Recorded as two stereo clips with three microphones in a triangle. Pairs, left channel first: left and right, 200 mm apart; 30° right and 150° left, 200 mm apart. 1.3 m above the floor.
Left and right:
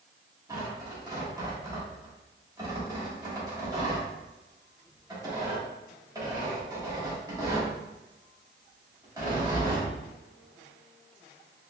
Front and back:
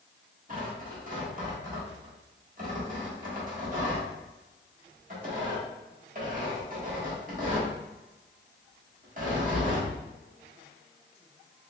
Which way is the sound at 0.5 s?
160° right.